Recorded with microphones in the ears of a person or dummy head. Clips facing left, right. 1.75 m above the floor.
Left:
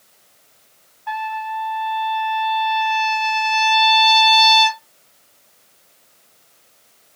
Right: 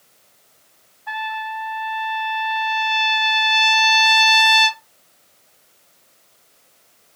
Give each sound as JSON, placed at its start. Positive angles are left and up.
{"t": 1.1, "sound": "a trumpet", "side_deg": -15, "distance_m": 1.4}